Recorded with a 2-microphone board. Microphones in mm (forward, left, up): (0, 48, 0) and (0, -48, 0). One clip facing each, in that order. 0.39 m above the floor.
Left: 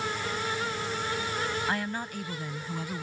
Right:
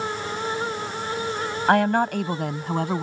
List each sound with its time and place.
1.7 s a woman speaking: 65° right (ahead or behind)